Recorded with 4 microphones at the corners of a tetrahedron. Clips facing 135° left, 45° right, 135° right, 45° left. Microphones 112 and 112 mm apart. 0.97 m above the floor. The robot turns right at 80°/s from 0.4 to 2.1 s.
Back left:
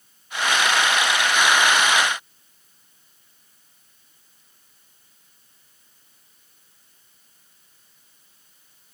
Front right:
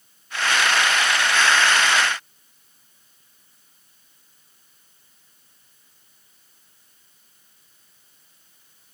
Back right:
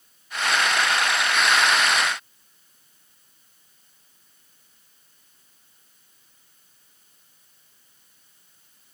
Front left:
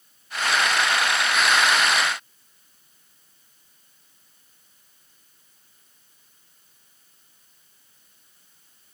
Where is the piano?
No piano in this recording.